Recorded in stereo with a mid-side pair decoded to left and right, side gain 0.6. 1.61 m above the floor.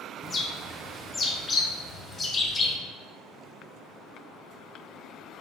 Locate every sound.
0.2 s a bird: 30° left, 0.8 m